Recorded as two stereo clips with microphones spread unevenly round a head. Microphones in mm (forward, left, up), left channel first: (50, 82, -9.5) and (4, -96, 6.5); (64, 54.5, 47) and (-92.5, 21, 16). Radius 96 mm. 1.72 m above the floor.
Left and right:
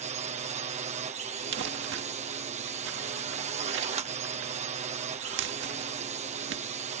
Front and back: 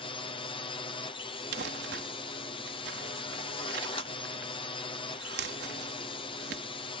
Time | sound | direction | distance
0.0 | a drone | 55° right | ?
1.5 | crumpling | 125° right | ?